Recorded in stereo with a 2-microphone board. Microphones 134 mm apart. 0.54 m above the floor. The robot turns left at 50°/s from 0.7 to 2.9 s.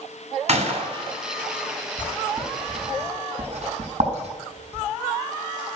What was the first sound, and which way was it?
A gunshot, 55° right (ahead or behind).